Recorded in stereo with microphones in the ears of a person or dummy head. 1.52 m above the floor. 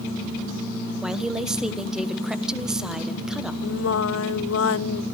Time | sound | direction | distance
1.0 | a woman speaking | 5° right (ahead or behind) | 1.2 m
3.6 | singing | 75° left (ahead or behind) | 0.7 m